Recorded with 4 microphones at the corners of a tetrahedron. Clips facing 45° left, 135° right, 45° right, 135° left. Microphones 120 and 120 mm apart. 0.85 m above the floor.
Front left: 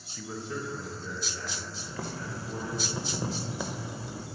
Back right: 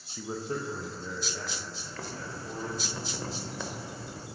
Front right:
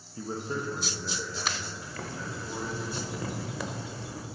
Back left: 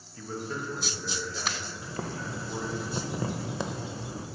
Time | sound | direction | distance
0.2 | a man speaking | 75° right | 0.5 m
1.8 | boiling | 105° left | 0.6 m